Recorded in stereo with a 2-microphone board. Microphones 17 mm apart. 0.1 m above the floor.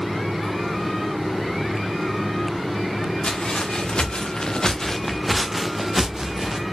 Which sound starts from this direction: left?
Footsteps, at 3.2 s.